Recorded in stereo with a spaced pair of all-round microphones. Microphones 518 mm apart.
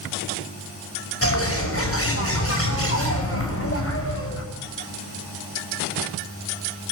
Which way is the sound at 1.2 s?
25° left (ahead or behind).